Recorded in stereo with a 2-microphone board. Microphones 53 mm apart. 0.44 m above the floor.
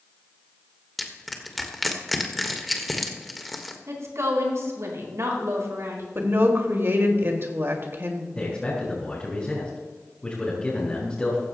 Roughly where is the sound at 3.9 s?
Right.